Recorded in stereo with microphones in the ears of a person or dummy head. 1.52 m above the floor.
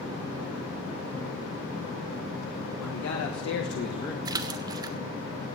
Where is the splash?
25° right (ahead or behind), 0.6 m.